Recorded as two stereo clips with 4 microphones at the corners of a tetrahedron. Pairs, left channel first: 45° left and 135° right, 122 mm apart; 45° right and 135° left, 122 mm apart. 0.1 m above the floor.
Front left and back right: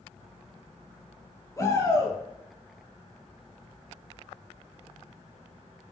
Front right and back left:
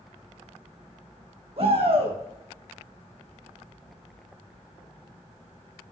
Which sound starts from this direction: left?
A shout, at 1.6 s.